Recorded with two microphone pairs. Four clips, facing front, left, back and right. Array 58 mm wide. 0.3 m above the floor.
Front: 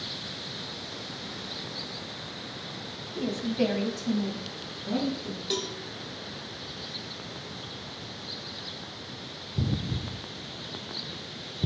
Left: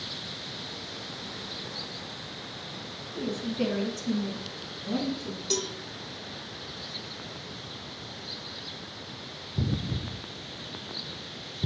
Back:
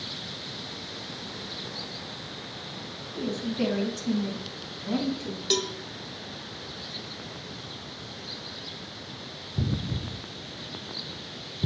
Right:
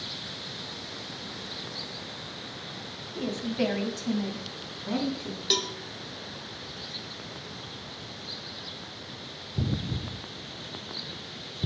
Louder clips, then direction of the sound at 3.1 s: Right 1 dB, front 1 dB; 60° right.